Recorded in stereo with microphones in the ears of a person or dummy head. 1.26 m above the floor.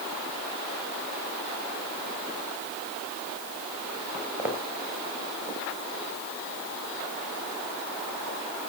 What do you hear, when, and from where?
4.1 s footsteps: 5° right (ahead or behind), 4 m; by 8.4 s 40° right (ahead or behind), 9 m